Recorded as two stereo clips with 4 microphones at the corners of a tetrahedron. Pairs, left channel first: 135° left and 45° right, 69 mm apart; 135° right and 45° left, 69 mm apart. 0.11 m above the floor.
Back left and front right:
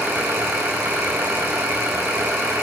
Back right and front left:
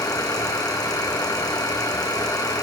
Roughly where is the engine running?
Right.